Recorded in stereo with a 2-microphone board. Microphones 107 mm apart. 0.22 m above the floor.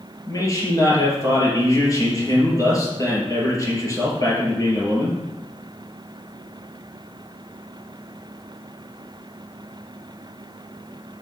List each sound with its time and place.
0.3 s a man speaking: 35° left (ahead or behind), 3.5 m